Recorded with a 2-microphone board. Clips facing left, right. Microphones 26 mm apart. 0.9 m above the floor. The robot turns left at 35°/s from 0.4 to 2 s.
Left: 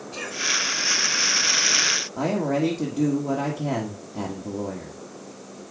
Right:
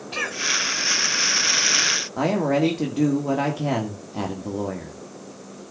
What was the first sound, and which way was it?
A cough, 75° right (ahead or behind).